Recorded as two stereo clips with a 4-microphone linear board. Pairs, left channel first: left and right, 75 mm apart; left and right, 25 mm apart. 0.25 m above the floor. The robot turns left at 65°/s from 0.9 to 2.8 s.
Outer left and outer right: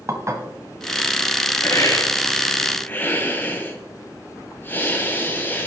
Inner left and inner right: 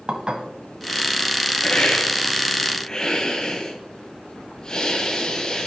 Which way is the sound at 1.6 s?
120° left.